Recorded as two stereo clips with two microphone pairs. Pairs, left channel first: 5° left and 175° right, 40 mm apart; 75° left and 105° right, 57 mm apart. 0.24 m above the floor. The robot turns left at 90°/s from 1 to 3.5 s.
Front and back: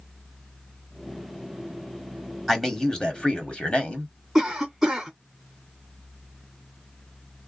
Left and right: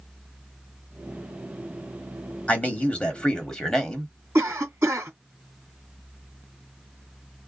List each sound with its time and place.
2.5 s a man speaking: 100° left, 1.0 m; by 4.1 s 10° left, 1.0 m
4.3 s a cough: 90° right, 1.9 m